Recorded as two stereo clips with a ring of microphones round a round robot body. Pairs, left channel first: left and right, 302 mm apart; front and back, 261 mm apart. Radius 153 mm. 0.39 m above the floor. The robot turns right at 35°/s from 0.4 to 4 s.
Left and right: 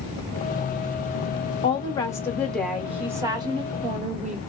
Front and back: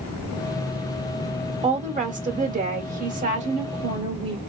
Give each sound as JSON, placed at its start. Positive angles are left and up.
{"t": 1.6, "sound": "a woman speaking", "azimuth_deg": 145, "distance_m": 0.8}